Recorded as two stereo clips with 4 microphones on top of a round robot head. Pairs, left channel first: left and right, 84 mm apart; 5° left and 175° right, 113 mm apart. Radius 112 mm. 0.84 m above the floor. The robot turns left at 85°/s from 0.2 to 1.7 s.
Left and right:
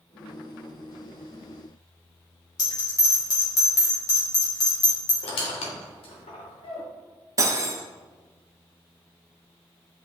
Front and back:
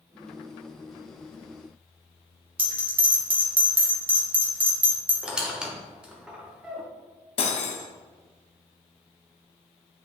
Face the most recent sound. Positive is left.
turn(degrees=-35)